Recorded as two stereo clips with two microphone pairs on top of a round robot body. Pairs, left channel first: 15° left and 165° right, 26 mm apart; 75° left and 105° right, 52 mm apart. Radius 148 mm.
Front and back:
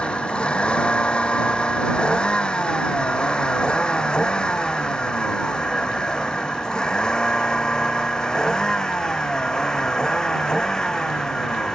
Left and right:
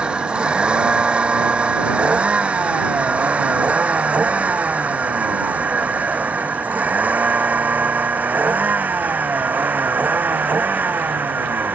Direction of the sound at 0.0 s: 35° right.